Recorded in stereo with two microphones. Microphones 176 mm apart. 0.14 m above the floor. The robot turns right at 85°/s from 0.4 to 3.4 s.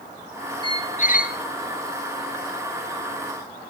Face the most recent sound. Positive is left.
turn(degrees=-95)